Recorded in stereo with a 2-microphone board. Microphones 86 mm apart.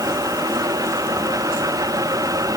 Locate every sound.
Only background noise.